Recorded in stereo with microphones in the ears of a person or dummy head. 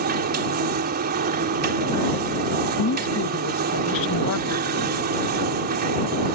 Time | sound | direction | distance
0.0 | a machine running | 40° right (ahead or behind) | ?
2.8 | a woman speaking | 65° left (ahead or behind) | ?